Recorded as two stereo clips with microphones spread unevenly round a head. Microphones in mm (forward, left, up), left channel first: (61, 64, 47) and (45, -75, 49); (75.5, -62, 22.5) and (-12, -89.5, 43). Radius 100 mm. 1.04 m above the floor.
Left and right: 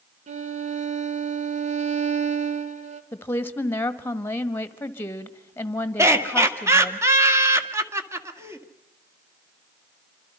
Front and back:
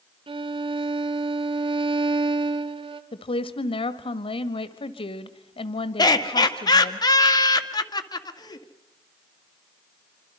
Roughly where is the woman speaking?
Ahead.